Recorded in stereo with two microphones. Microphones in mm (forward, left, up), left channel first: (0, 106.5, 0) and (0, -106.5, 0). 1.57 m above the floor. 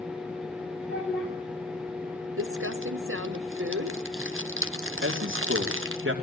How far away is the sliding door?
I don't hear a sliding door.